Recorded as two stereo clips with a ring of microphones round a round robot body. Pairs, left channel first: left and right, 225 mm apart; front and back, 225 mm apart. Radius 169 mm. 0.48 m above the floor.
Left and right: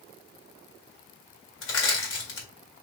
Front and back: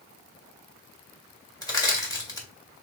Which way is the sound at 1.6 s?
75° left.